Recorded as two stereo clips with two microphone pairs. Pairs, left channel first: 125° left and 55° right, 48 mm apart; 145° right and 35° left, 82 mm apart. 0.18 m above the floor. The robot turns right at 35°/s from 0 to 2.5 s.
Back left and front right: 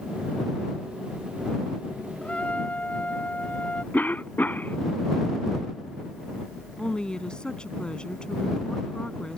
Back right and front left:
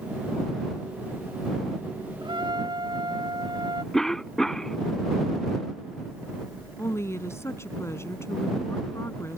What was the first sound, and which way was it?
A trumpet, 55° left.